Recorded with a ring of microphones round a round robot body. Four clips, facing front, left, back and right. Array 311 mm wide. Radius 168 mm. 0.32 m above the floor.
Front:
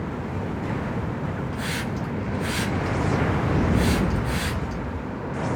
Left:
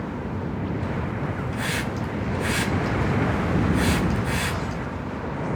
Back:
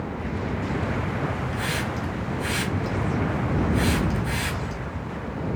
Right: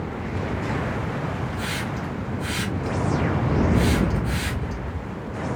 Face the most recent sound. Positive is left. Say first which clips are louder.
# left 1 dB, back 1 dB
turn(degrees=115)